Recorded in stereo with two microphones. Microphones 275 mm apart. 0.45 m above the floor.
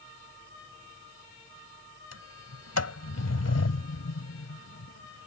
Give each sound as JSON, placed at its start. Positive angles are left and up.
{"t": 2.1, "sound": "a sliding door", "side_deg": 65}